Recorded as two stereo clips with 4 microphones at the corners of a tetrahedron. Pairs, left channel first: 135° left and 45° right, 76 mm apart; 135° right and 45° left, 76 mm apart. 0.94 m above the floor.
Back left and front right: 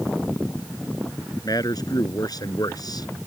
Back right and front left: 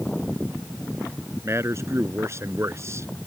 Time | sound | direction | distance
1.4 | a man speaking | 100° left | ?